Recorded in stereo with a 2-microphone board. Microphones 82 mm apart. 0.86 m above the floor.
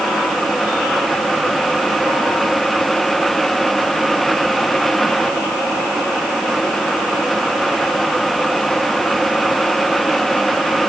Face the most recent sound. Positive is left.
No sound to turn to.